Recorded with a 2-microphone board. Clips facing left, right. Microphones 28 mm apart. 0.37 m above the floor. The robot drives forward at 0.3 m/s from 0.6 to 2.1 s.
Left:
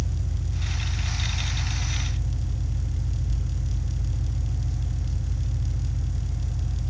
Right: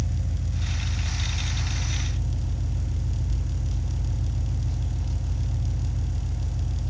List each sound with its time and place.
0.0 s an engine running: 65° right (ahead or behind), 2 m; by 6.9 s 60° right (ahead or behind), 2 m